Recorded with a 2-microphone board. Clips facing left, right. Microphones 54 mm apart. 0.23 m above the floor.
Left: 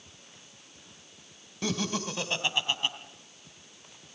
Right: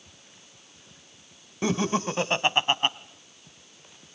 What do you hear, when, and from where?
1.6 s laughter: 25° right (ahead or behind), 1.0 m; by 3.0 s 45° right (ahead or behind), 1.4 m